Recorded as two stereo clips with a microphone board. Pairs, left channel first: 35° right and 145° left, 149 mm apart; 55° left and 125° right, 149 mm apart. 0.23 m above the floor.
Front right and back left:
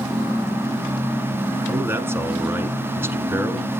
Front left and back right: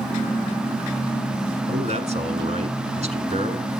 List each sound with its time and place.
1.7 s a man speaking: 145° right, 1.5 m